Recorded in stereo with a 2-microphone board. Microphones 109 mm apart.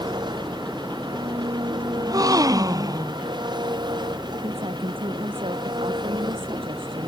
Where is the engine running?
45° right (ahead or behind).